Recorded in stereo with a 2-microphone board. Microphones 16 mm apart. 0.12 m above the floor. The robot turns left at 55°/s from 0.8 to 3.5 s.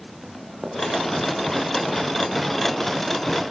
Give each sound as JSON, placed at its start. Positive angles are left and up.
{"t": 0.2, "sound": "running footsteps", "side_deg": -60, "distance_m": 9.5}